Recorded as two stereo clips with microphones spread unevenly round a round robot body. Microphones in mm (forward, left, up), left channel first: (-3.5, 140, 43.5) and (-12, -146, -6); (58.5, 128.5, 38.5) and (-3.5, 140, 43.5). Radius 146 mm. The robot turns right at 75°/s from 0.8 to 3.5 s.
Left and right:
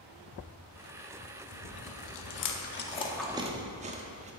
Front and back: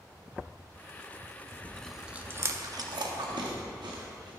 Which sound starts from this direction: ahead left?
Chewing, at 1.5 s.